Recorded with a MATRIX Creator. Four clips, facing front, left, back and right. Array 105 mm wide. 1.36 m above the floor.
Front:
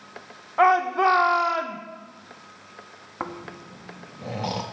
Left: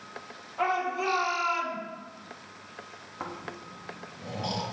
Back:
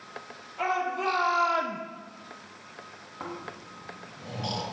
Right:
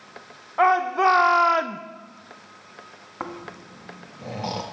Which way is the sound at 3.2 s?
35° right.